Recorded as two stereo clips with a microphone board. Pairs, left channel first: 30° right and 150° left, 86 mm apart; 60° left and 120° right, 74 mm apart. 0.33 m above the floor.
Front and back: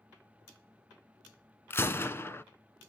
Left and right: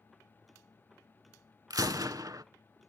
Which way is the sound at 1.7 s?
90° right.